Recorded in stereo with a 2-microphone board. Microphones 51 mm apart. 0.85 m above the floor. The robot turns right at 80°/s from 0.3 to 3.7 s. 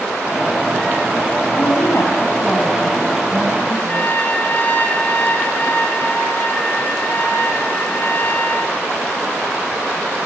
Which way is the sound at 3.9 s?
35° left (ahead or behind).